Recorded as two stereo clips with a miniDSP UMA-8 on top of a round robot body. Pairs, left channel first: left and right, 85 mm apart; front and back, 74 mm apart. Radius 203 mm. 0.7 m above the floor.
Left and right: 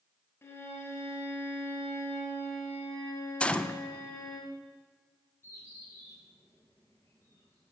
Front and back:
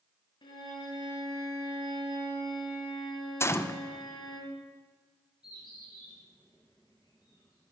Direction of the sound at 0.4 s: 25° left.